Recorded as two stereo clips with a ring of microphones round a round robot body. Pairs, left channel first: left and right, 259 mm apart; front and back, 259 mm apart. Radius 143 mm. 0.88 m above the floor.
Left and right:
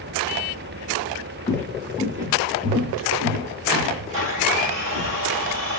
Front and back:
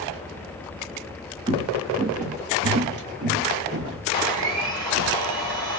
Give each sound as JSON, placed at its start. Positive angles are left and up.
{"t": 1.5, "sound": "footsteps", "azimuth_deg": 145, "distance_m": 0.8}
{"t": 4.1, "sound": "a blender", "azimuth_deg": -145, "distance_m": 2.0}